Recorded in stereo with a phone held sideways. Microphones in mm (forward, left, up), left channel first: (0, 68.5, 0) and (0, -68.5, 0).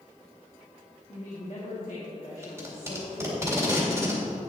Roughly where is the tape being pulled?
Centre.